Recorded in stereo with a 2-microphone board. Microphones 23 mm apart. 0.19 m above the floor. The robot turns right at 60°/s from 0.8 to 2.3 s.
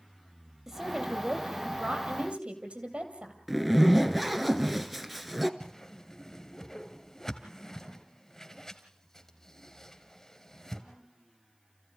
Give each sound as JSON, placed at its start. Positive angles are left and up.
{"t": 0.7, "sound": "a woman speaking", "azimuth_deg": -160, "distance_m": 4.0}
{"t": 3.5, "sound": "a zipper", "side_deg": 0, "distance_m": 1.3}
{"t": 5.6, "sound": "a whoosh", "side_deg": 25, "distance_m": 2.0}